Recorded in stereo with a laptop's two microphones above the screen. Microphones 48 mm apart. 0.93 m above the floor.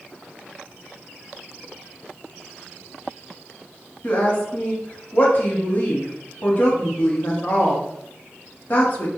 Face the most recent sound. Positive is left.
turn(degrees=40)  # may be behind; listen again after turning